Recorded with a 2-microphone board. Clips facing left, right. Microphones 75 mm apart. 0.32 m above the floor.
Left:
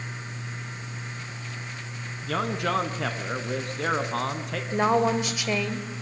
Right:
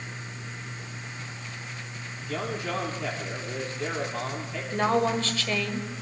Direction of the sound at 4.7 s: 15° left (ahead or behind).